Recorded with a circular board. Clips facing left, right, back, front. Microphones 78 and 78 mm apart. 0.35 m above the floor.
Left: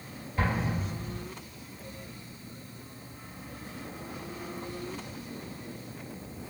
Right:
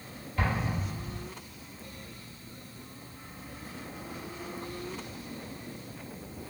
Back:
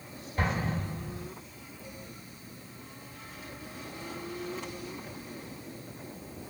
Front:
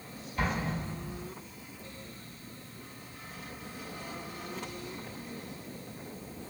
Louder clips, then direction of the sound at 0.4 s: Left 1 dB, back 1 dB; 145° left.